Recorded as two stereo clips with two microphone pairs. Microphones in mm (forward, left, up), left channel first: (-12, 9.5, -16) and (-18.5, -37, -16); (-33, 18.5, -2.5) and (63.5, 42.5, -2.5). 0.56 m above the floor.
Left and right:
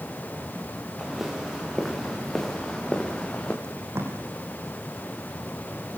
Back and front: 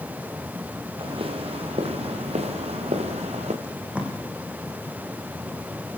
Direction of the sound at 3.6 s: 65° right.